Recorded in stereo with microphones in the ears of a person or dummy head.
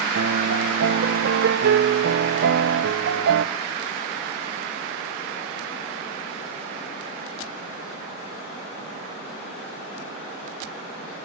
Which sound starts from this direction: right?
A piano, at 0.1 s.